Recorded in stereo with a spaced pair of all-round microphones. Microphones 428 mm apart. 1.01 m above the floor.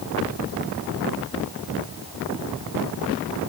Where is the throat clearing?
No throat clearing in this recording.